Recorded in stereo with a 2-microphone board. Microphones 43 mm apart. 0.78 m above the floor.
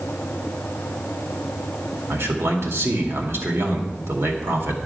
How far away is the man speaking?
About 2 m.